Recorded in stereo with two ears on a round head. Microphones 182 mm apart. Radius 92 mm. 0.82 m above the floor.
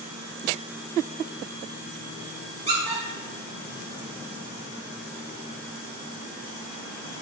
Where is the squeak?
30° right (ahead or behind), 1.3 m.